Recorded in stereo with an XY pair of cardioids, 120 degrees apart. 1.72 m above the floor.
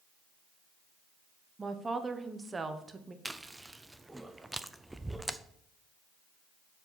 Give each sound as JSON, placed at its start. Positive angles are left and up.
{"t": 1.6, "sound": "a woman speaking", "azimuth_deg": -25, "distance_m": 1.1}
{"t": 3.2, "sound": "chewing", "azimuth_deg": -10, "distance_m": 0.5}